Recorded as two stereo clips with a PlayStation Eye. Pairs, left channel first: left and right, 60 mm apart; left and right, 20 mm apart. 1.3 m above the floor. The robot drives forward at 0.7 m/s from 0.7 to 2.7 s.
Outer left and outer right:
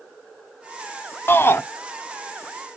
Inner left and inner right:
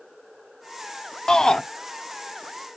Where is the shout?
40° left (ahead or behind), 0.6 m.